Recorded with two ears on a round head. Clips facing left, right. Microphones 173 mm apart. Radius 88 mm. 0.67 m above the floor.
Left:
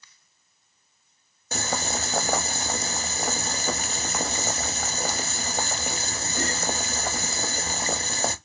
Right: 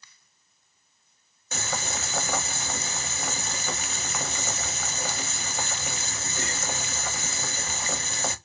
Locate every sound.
1.5 s boiling: 35° left (ahead or behind), 0.6 m